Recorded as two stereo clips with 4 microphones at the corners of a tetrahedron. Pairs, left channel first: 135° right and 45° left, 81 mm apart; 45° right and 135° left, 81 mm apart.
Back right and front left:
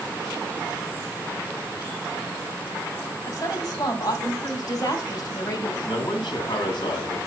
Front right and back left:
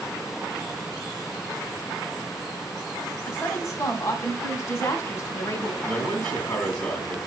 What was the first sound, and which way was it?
A woman speaking, 95° right.